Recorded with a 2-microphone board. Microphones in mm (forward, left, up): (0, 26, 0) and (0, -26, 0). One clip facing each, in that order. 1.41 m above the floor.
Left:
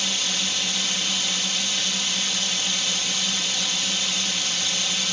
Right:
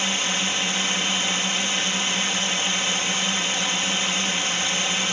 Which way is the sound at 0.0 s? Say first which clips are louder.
Right 3 dB; 30° right (ahead or behind).